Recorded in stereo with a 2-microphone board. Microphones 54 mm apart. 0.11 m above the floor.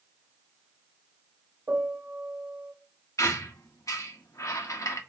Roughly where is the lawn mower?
No lawn mower in this recording.